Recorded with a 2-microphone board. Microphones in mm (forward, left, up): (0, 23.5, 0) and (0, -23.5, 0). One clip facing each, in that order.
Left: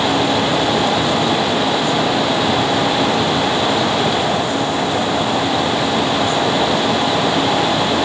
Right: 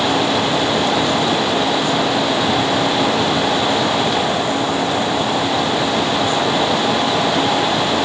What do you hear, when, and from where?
Only background noise.